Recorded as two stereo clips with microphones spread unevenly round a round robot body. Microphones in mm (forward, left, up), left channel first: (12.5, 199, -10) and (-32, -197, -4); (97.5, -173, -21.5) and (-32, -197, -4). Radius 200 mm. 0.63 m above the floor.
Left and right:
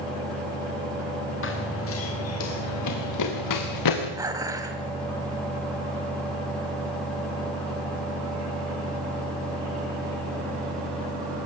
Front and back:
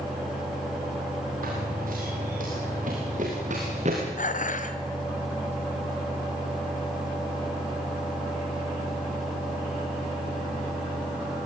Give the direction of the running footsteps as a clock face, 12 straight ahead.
7 o'clock.